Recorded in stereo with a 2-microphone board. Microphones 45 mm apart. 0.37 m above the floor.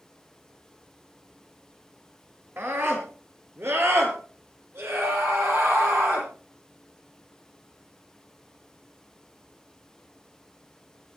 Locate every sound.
2.6 s a scream: 60° right (ahead or behind), 5.5 m; by 6.3 s 75° right (ahead or behind), 10.5 m